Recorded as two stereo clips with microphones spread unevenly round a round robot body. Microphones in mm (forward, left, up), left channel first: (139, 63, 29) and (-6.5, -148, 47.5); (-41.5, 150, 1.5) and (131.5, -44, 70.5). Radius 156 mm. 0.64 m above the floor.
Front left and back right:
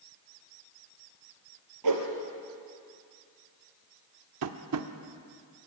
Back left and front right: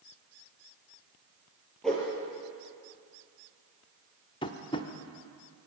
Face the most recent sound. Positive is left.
turn(degrees=-160)